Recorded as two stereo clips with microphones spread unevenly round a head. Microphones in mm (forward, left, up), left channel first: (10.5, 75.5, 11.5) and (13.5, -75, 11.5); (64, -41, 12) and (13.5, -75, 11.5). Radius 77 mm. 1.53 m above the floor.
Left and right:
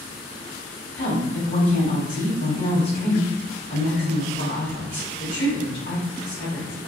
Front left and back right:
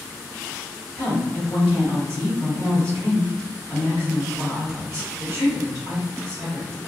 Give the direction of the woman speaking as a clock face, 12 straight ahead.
8 o'clock.